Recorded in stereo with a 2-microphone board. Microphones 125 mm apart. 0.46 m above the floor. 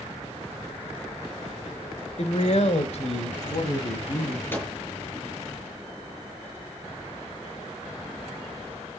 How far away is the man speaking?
About 1.5 m.